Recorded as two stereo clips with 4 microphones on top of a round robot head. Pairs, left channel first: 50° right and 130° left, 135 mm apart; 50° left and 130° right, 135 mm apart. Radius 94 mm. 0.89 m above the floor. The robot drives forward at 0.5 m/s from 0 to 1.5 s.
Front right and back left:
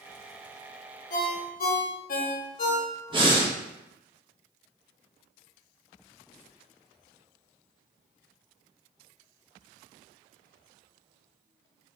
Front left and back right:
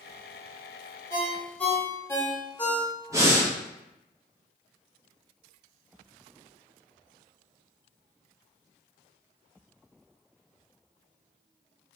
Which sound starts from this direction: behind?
Breathing, at 3.1 s.